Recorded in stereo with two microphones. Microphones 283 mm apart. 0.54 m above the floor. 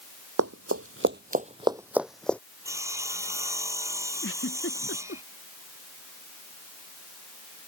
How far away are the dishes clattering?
I don't hear dishes clattering.